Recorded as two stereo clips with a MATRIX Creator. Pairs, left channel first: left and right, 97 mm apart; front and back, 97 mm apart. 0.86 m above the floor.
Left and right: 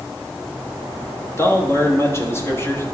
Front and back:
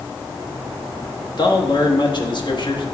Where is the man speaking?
30° left, 1.3 m.